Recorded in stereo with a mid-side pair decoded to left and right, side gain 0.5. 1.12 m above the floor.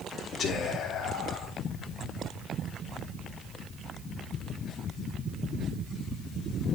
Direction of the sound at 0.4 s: 65° left.